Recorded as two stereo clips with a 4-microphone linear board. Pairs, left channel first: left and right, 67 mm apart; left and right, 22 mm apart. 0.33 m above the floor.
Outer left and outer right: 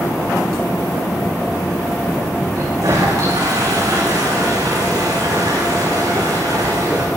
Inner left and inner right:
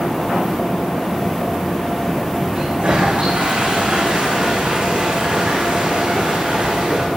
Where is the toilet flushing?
65° right (ahead or behind), 8 m.